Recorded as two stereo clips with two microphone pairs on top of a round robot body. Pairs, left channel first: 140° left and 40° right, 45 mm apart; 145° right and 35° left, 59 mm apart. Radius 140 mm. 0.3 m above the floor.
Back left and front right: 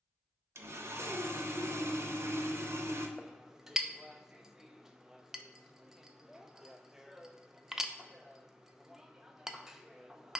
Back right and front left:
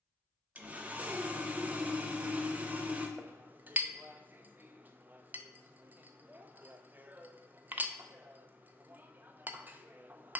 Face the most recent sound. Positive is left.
turn(degrees=20)